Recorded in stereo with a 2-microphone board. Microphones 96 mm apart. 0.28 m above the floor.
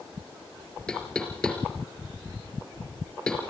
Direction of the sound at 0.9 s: 10° left (ahead or behind).